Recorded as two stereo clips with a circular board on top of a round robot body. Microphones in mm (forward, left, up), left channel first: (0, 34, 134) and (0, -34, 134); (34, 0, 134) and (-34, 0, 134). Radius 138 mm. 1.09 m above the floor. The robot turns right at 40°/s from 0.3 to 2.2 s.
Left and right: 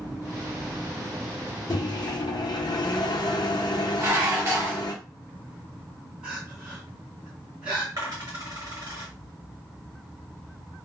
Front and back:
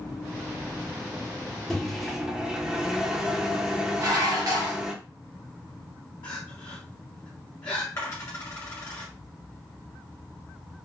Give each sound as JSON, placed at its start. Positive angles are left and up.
{"t": 1.7, "sound": "a microwave", "azimuth_deg": 80, "distance_m": 0.6}
{"t": 4.0, "sound": "dishes clattering", "azimuth_deg": -145, "distance_m": 0.8}
{"t": 6.2, "sound": "crying", "azimuth_deg": -15, "distance_m": 1.0}
{"t": 8.0, "sound": "a dropped coin", "azimuth_deg": -50, "distance_m": 1.1}